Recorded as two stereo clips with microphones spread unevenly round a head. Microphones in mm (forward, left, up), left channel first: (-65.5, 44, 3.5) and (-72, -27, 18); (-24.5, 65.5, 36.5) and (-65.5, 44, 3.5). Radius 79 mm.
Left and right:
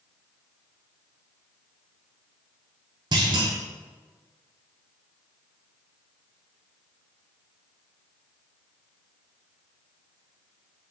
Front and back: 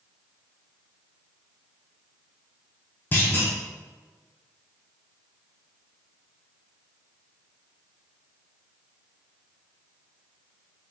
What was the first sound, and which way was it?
A clunk, 60° right.